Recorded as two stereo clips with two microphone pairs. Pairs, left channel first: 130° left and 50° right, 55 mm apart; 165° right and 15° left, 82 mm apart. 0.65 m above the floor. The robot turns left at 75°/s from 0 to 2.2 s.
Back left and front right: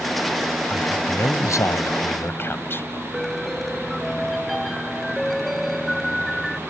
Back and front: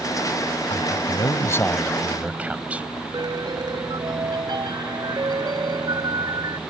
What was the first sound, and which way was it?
A man speaking, 160° right.